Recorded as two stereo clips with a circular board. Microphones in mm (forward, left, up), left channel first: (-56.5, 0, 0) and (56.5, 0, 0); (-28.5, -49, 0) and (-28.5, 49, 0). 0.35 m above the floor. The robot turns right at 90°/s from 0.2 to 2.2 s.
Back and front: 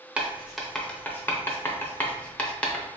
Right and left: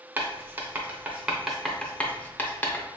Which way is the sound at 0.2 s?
60° left.